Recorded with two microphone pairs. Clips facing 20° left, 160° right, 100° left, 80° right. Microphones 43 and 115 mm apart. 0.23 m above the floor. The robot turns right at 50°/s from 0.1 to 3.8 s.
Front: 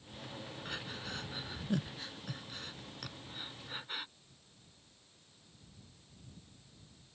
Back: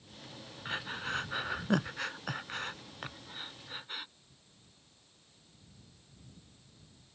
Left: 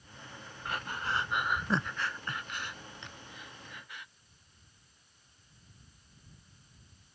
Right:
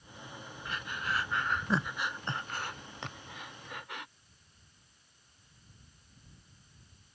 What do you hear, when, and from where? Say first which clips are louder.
0.7 s breathing: back 8 dB, left 2 dB; 135° left; by 4.1 s 65° right